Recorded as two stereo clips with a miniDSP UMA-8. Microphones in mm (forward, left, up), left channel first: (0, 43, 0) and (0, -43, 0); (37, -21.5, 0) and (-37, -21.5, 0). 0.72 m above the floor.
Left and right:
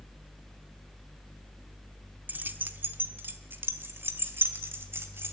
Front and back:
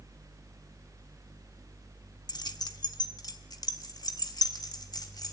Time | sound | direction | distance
2.3 | keys jangling | 20° right | 1.0 m